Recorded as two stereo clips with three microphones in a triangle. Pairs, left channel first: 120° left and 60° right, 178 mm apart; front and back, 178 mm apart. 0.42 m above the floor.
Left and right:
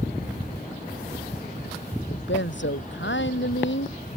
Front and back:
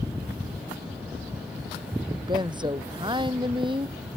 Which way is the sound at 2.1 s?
115° left.